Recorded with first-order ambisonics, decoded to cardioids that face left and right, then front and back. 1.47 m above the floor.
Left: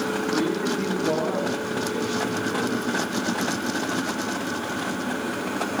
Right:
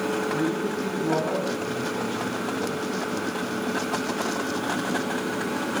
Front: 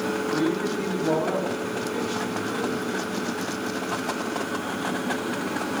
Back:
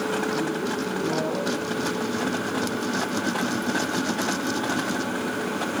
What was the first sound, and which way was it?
A man speaking, 50° left.